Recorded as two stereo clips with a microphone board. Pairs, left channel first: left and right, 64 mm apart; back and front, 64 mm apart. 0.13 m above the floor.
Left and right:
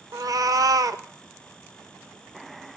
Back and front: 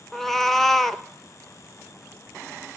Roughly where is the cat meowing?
Right.